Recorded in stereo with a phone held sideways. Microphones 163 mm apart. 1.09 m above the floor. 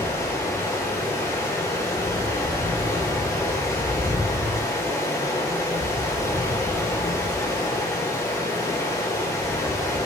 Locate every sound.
0.0 s running water: 20° left (ahead or behind), 1.5 m